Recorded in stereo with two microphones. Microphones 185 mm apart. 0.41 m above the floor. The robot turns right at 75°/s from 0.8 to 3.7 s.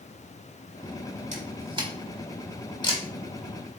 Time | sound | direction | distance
1.3 | a camera shutter | 40° right (ahead or behind) | 1.4 m